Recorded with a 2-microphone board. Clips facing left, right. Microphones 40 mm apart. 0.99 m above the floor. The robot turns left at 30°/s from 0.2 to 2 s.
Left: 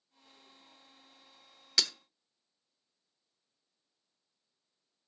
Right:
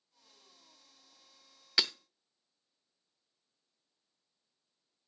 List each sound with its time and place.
1.8 s breaking glass: 20° right (ahead or behind), 0.7 m; by 1.9 s 25° right (ahead or behind), 0.7 m